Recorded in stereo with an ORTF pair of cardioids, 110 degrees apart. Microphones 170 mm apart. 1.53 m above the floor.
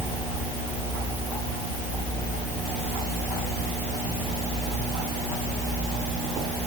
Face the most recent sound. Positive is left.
No sound to turn to.